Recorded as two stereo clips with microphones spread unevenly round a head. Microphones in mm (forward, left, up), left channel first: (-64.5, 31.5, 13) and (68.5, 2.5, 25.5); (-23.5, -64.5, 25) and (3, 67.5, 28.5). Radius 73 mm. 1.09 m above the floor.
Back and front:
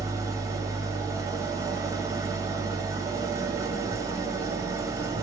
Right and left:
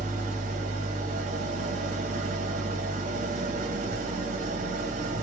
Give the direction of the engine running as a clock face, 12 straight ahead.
10 o'clock.